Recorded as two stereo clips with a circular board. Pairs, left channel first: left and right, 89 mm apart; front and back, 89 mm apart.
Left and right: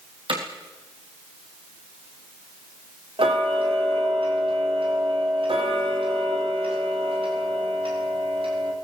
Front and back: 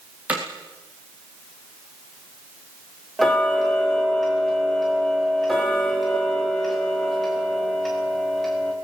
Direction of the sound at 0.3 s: 105° right.